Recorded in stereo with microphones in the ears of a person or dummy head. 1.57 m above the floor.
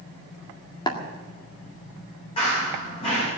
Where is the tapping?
30° left (ahead or behind), 1.8 m.